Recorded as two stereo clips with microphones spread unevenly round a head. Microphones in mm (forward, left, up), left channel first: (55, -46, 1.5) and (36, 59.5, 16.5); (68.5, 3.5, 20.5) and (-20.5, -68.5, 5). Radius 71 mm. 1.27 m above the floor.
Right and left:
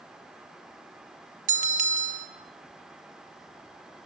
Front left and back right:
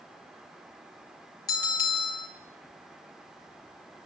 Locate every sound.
1.5 s a bell: 105° left, 2.5 m